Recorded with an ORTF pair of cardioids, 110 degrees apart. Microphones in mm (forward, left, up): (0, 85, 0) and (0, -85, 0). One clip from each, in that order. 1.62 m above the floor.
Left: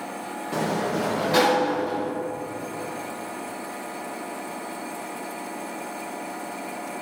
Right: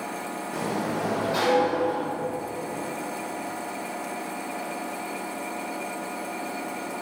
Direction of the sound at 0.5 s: 55° left.